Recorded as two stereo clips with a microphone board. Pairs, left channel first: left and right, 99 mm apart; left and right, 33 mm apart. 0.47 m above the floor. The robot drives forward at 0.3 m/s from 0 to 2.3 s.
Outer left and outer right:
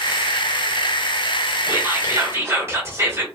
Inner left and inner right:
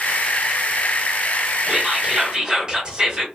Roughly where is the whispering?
Right.